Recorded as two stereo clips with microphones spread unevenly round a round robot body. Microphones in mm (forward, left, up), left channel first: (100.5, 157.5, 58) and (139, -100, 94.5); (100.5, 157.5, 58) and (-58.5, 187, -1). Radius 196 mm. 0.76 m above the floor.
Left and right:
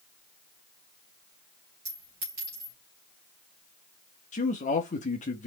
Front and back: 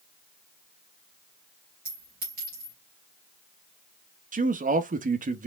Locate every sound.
1.9 s a clink: 145° right, 3 m
4.3 s a man speaking: 160° left, 0.9 m